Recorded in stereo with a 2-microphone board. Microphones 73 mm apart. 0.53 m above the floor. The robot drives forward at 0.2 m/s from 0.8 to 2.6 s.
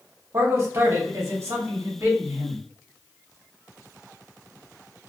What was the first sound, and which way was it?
A man speaking, 40° right (ahead or behind).